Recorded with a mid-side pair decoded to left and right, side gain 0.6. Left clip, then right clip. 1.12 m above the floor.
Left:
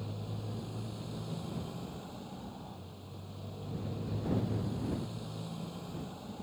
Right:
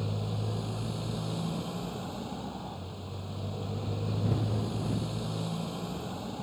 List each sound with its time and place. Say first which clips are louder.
0.0 s a motorcycle: right 7 dB; 40° right